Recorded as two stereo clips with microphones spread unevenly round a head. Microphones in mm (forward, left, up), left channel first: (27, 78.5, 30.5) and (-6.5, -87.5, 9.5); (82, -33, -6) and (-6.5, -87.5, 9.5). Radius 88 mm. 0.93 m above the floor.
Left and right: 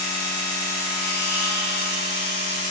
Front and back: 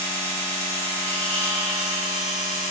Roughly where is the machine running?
Left.